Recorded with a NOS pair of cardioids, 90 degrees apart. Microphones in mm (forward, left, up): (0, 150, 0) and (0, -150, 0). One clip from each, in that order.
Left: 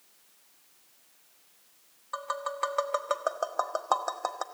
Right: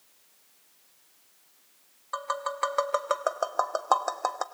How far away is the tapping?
About 1.4 m.